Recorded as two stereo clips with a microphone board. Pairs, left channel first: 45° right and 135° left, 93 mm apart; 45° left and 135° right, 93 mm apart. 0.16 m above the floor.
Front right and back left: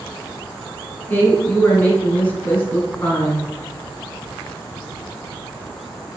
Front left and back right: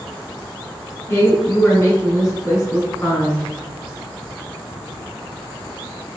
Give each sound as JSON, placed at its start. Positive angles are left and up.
{"t": 1.1, "sound": "a woman speaking", "azimuth_deg": 10, "distance_m": 1.5}